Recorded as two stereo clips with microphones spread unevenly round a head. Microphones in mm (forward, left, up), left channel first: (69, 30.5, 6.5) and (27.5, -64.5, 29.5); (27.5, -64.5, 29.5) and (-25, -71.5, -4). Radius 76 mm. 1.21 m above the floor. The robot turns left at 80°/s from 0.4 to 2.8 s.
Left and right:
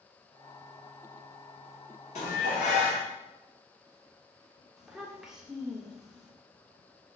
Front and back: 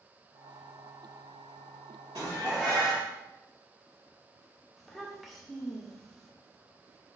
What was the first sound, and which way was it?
Dishes clattering, 115° left.